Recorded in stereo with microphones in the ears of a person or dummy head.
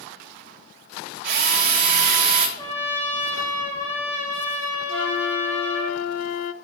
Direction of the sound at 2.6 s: 15° left (ahead or behind).